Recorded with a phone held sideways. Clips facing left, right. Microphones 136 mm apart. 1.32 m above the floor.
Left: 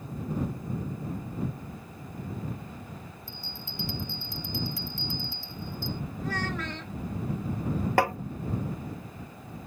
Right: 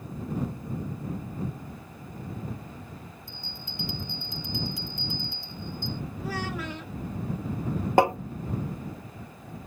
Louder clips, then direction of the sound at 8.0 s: Right 5 dB; 20° right (ahead or behind).